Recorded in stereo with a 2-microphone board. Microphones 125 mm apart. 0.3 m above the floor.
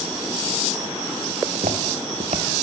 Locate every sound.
1.4 s footsteps: 80° right, 3 m; by 2.5 s 75° right (ahead or behind), 3.5 m